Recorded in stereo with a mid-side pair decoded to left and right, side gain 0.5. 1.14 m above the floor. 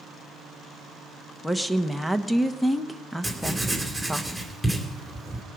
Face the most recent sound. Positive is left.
turn(degrees=5)